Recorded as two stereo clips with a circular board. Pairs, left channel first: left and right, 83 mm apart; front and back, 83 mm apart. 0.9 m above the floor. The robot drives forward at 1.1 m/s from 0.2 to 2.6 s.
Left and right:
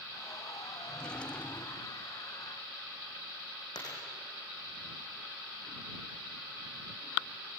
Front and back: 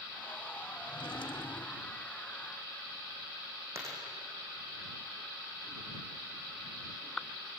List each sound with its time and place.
0.9 s a drawer: 10° left, 1.6 m; by 1.9 s 35° left, 0.6 m
3.8 s a dropped coin: 125° left, 6 m